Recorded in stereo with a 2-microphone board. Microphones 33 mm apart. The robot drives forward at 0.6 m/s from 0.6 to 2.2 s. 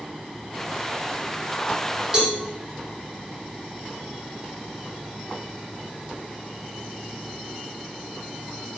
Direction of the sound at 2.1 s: 25° right (ahead or behind).